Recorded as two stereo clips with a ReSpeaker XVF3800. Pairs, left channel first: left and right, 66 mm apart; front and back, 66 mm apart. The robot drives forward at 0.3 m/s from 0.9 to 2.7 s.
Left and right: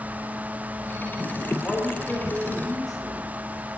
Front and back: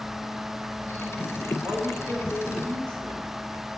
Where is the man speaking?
175° left, 3.5 m.